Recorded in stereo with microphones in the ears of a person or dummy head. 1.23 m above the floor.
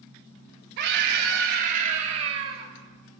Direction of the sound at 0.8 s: 55° right (ahead or behind).